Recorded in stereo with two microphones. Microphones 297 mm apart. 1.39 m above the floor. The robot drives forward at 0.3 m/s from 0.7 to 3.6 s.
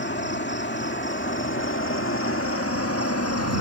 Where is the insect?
35° left (ahead or behind); by 3.6 s 55° left (ahead or behind).